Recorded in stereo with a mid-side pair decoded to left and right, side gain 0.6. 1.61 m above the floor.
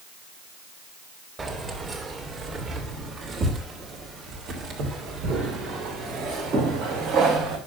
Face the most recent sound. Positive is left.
turn(degrees=-75)